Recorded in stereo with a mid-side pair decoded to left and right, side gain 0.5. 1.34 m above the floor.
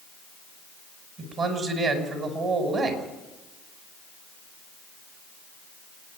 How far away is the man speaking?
About 6 m.